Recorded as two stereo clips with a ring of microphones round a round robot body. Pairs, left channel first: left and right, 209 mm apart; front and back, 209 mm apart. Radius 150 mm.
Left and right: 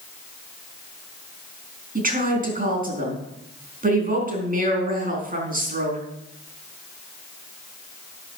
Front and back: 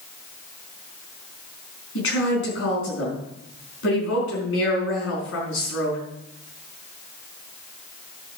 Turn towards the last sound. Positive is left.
turn(degrees=-40)